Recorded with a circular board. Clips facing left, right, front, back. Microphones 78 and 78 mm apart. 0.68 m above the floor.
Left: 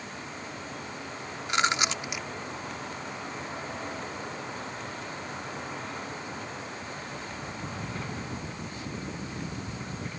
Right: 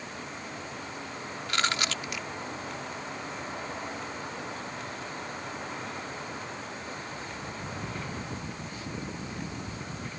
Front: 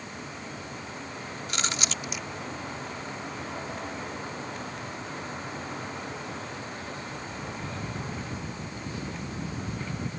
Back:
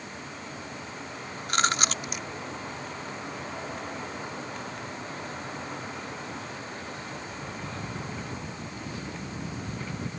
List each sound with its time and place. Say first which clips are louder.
1.5 s chewing: left 3 dB, back 7 dB; 155° left